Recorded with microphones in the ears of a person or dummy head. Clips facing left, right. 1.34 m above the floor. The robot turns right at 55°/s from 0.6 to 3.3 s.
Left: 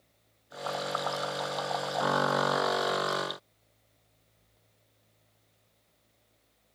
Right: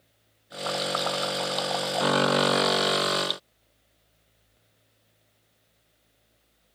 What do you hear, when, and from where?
Only background noise.